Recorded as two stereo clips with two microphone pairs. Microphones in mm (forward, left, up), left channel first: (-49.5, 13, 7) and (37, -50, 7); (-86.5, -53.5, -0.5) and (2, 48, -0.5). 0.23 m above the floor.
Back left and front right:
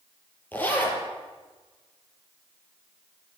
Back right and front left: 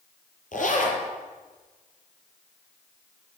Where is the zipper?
145° right, 5 m.